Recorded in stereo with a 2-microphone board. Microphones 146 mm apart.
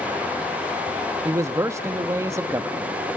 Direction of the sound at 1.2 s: 20° right (ahead or behind).